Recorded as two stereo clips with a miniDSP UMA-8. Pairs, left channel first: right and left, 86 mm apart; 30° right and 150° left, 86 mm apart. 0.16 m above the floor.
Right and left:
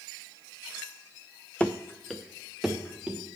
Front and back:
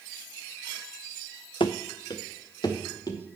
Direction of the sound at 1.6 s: 15° right.